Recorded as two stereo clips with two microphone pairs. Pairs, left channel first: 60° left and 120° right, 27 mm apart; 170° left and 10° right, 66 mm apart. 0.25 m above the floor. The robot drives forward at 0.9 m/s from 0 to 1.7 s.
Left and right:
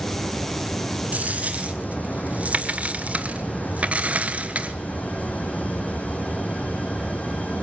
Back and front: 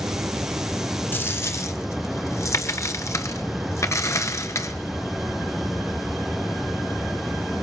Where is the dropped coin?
130° right, 0.9 m; by 4.7 s 150° right, 1.3 m.